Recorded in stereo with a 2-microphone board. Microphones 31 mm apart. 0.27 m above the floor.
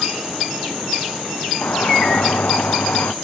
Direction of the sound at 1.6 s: 75° left (ahead or behind).